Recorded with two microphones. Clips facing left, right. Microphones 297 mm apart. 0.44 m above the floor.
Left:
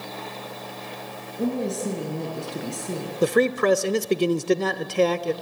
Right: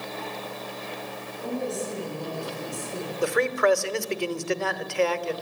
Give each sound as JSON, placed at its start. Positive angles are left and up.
{"t": 1.4, "sound": "a woman speaking", "side_deg": 75, "distance_m": 6.5}
{"t": 3.2, "sound": "a man speaking", "side_deg": 45, "distance_m": 1.0}